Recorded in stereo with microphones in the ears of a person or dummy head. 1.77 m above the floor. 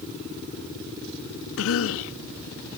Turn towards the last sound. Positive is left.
turn(degrees=80)